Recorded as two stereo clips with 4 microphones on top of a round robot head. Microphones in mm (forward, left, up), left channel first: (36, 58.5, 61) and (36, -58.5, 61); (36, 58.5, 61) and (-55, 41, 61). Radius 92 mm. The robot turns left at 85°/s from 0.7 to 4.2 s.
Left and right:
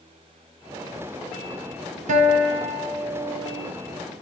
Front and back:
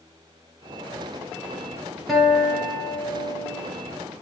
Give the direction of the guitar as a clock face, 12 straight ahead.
3 o'clock.